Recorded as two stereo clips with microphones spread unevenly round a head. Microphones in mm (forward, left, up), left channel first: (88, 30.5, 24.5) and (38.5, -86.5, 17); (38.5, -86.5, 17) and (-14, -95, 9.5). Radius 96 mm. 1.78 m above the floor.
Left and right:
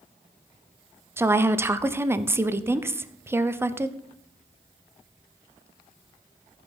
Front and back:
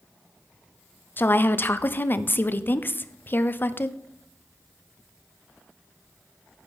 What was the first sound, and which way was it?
A woman speaking, 40° right.